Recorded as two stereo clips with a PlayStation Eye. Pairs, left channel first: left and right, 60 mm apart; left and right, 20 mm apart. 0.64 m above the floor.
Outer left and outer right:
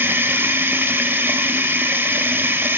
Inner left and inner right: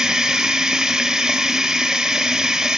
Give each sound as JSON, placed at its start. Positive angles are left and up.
{"t": 0.0, "sound": "running water", "side_deg": -35, "distance_m": 1.9}